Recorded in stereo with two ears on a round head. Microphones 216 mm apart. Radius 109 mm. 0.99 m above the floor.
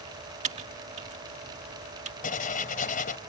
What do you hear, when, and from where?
0.4 s typing on a keyboard: 30° right (ahead or behind)
2.2 s writing: 40° left (ahead or behind)